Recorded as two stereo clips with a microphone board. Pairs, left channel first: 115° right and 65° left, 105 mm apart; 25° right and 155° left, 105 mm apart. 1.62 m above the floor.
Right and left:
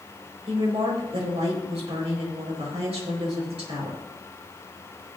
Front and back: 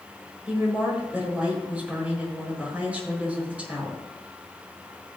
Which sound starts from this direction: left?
A woman speaking, at 0.5 s.